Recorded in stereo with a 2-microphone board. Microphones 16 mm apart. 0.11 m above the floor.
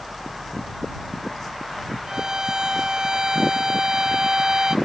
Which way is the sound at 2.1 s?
45° right (ahead or behind).